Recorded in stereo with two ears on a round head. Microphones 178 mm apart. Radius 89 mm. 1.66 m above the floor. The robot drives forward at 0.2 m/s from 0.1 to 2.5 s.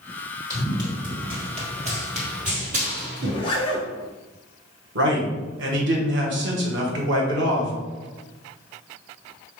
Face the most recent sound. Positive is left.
turn(degrees=-65)  # may be behind; listen again after turning